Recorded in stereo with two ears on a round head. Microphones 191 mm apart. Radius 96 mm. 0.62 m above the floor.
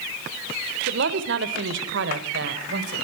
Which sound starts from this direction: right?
A woman speaking, at 0.9 s.